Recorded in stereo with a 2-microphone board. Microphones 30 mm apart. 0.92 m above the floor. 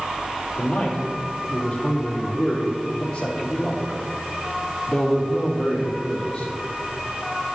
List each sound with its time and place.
0.6 s a man speaking: 40° left (ahead or behind), 2.5 m